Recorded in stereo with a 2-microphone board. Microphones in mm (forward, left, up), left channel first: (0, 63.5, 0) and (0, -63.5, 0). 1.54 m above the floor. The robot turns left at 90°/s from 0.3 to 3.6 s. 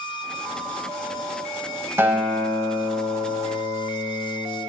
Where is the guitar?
160° right, 3 m; by 4.6 s 55° left, 3 m.